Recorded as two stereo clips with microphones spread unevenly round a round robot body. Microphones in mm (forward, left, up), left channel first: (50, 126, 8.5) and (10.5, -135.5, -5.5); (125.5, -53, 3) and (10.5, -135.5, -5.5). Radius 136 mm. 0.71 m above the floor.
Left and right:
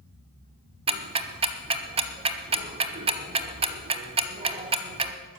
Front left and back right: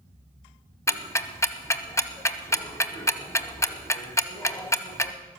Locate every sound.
0.9 s ticking: 30° right, 1.0 m